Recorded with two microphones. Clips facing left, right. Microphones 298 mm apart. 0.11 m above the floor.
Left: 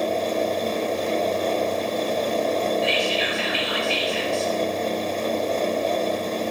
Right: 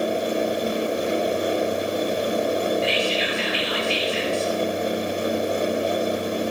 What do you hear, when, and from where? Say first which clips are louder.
2.8 s whispering: even; 55° left (ahead or behind), 3 m